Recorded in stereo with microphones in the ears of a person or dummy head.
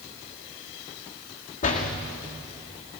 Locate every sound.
1.6 s a door slam: 45° left (ahead or behind), 2.5 m